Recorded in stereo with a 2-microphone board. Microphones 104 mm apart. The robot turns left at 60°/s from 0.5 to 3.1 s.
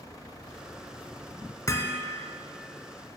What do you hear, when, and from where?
1.7 s hammering: 35° left (ahead or behind), 0.6 m; by 2.0 s 20° left (ahead or behind), 0.6 m